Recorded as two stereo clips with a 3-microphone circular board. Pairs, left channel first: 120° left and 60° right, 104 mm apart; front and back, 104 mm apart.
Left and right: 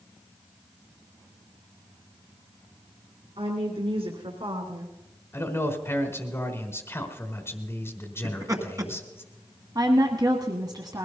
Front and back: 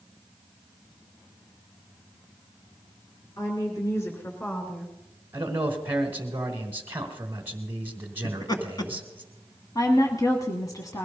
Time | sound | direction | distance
3.4 | a woman speaking | 55° right | 2.5 m
5.3 | a man speaking | 140° left | 1.1 m
8.2 | laughter | 20° right | 1.9 m
9.8 | a woman speaking | 40° right | 1.3 m